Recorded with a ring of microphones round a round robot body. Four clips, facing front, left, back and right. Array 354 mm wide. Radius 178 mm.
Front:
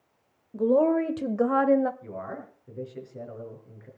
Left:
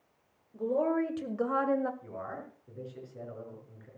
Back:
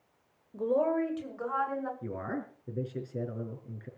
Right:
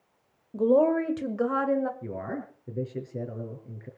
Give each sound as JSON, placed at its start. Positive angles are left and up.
{"t": 0.5, "sound": "a woman speaking", "azimuth_deg": -65, "distance_m": 1.8}
{"t": 2.0, "sound": "a man speaking", "azimuth_deg": -125, "distance_m": 5.0}